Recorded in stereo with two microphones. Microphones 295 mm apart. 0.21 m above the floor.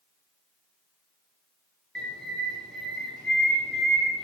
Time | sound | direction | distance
1.9 | a bird | 5° left (ahead or behind) | 0.7 m